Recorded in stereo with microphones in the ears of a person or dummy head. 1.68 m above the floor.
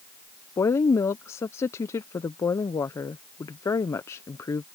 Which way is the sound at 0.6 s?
25° left (ahead or behind).